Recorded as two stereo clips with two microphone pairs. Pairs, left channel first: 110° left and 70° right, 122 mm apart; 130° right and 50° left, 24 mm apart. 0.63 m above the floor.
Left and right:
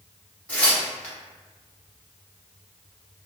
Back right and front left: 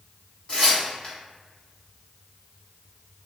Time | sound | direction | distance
0.5 | tearing paper | 175° right | 1.1 m